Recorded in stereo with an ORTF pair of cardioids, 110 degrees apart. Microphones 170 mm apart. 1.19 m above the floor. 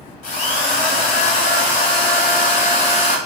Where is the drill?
50° left, 0.7 m.